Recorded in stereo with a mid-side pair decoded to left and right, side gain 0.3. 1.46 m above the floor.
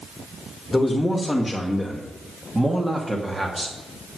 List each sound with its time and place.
0.7 s a man speaking: 20° left, 2 m; by 4.2 s 35° right, 3 m